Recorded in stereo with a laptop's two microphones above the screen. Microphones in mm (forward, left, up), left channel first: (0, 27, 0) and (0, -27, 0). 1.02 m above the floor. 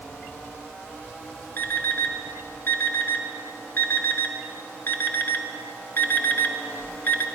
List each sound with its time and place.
1.6 s an alarm clock: 45° left (ahead or behind), 0.8 m